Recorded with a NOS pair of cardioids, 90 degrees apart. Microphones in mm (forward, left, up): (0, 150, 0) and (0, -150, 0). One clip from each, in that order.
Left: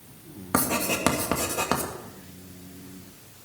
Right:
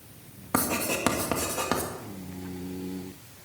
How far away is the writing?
About 2.5 m.